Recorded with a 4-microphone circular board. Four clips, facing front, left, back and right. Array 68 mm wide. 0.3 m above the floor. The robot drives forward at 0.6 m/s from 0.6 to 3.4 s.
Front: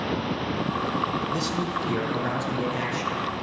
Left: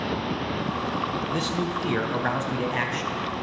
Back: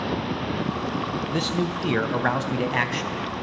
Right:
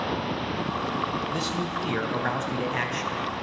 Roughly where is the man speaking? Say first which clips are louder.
Left 2 dB, back 1 dB; behind.